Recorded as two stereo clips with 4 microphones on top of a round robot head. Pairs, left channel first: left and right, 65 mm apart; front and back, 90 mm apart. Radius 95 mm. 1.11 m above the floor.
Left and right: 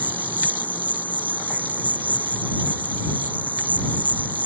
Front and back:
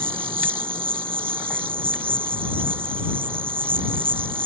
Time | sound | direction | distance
0.0 | an insect | 130° right | ?